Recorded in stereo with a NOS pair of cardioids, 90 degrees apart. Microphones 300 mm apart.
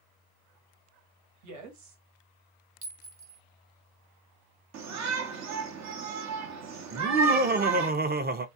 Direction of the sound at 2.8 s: 45° right.